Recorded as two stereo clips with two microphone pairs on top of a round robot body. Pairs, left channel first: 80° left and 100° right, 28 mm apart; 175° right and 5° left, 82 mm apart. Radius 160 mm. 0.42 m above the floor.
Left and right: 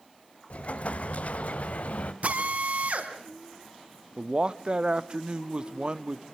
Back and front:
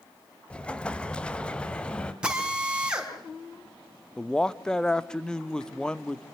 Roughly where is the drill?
Right.